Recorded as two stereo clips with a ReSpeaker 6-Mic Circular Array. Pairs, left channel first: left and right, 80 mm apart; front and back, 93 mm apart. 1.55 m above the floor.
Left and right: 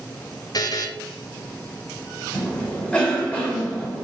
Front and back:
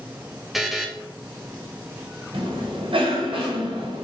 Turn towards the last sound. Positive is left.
turn(degrees=165)